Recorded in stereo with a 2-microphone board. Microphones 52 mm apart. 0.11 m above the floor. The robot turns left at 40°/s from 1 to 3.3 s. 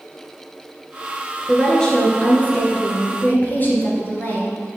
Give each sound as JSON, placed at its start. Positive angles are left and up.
{"t": 1.5, "sound": "a woman speaking", "azimuth_deg": 170, "distance_m": 2.0}